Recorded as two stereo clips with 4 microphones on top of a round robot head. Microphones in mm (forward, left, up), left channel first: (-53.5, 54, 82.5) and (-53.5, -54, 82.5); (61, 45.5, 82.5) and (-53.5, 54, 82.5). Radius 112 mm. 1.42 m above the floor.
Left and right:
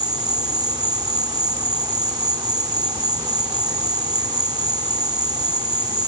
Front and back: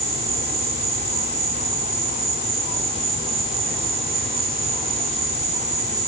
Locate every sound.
0.0 s an insect: 145° right